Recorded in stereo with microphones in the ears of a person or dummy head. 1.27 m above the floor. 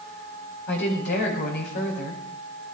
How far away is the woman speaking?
About 5.5 m.